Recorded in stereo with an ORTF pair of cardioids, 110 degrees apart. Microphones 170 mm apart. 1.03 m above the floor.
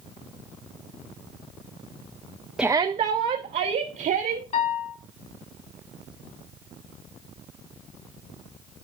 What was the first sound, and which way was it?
A shout, 5° right.